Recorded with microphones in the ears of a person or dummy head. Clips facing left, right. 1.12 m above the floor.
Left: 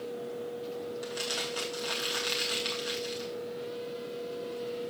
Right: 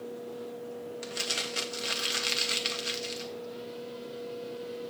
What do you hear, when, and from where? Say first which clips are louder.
1.0 s crumpling: left 2 dB; 30° right (ahead or behind), 1.3 m